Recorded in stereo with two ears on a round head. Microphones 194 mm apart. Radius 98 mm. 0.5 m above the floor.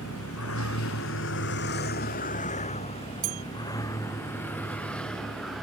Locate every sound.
0.0 s a vehicle: 85° left; by 5.6 s centre (ahead or behind)
3.2 s a bell: 45° right (ahead or behind)